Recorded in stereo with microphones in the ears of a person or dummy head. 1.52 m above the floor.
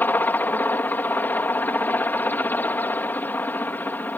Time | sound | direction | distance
0.0 | a helicopter | 15° left (ahead or behind) | ?